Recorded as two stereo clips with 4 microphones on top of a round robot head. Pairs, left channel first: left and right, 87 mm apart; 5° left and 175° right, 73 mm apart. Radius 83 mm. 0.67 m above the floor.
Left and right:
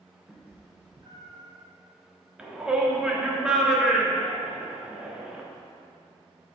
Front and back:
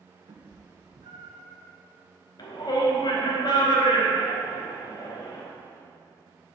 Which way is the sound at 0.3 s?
175° right.